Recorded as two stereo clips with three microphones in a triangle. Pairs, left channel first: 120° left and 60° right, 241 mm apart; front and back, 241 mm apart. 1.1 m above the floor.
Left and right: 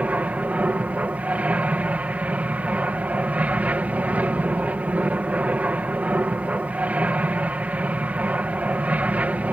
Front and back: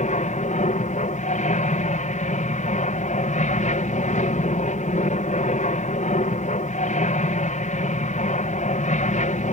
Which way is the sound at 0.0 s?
20° left.